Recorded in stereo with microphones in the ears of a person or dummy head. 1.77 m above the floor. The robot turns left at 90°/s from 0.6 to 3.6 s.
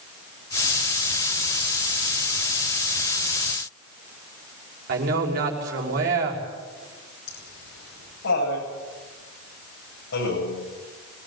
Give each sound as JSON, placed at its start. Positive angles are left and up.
{"t": 4.9, "sound": "a man speaking", "side_deg": -60, "distance_m": 6.0}
{"t": 7.3, "sound": "laughter", "side_deg": 75, "distance_m": 9.5}